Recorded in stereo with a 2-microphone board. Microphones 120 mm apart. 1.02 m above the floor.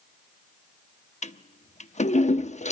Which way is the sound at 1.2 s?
70° left (ahead or behind).